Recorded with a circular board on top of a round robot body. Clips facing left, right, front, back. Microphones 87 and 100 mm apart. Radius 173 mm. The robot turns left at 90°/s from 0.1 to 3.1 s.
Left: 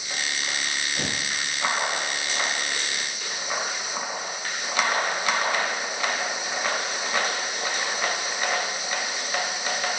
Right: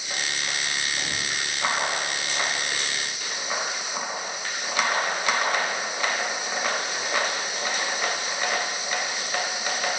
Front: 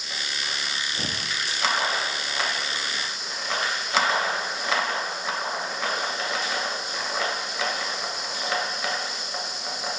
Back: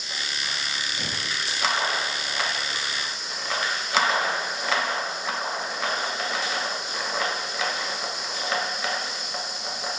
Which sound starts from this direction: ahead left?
Tearing paper, at 0.9 s.